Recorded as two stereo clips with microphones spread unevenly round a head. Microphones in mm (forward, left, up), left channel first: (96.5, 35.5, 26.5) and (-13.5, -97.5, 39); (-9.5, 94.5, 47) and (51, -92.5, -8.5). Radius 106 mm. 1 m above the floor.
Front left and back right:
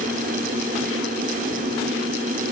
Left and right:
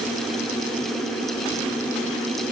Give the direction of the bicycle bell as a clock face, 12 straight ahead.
I don't hear a bicycle bell.